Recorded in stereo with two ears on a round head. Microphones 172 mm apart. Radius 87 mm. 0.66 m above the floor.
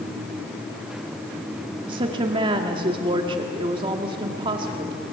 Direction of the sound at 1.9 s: 25° right (ahead or behind).